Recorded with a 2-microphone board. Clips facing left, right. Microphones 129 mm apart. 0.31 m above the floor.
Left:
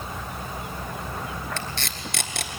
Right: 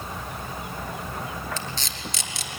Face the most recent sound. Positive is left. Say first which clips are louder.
# left 1 dB
turn(degrees=60)  # may be behind; listen again after turning